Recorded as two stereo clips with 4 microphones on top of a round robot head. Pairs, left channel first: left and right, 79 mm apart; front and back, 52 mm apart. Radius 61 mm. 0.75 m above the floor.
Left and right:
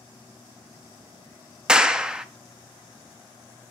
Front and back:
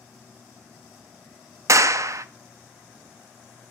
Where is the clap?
170° right, 0.5 m.